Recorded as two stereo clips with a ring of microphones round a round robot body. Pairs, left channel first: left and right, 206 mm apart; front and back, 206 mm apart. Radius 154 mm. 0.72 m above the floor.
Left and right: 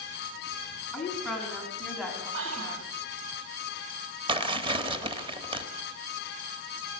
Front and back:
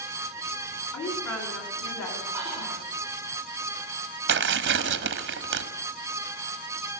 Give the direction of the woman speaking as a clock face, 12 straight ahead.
12 o'clock.